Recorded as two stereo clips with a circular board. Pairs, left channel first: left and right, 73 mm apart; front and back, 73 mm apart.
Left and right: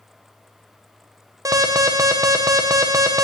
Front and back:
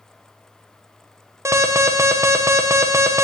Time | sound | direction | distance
1.4 | an alarm | 130° right | 0.7 m